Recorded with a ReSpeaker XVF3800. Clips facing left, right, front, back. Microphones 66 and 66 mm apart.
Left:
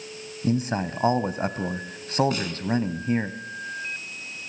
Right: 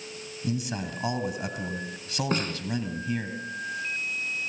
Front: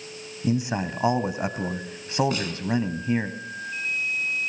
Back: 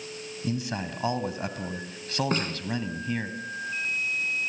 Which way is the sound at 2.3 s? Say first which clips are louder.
Right 1 dB, back 1 dB; 135° right.